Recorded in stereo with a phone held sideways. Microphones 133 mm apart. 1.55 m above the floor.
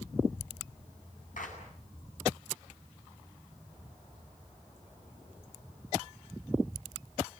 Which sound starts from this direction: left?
A clap, at 1.4 s.